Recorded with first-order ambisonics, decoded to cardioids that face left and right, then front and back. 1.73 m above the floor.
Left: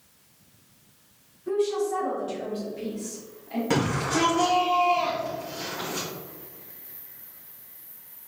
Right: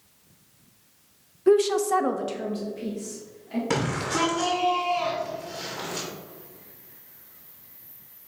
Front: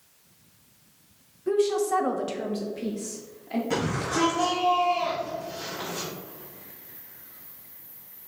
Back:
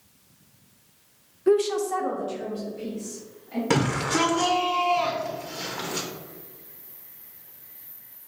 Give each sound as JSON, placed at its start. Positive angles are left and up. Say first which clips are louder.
{"t": 1.5, "sound": "a woman speaking", "louder": "right 6 dB, back 2 dB", "azimuth_deg": -120, "distance_m": 0.6}
{"t": 3.7, "sound": "a shout", "louder": "left 2 dB, back 5 dB", "azimuth_deg": 180, "distance_m": 0.8}